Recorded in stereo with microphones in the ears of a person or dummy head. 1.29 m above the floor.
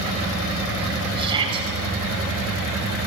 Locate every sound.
1.2 s a shout: 30° right (ahead or behind), 6.5 m